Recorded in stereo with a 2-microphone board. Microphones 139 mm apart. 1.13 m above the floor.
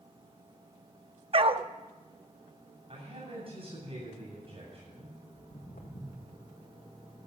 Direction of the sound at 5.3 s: 70° left (ahead or behind).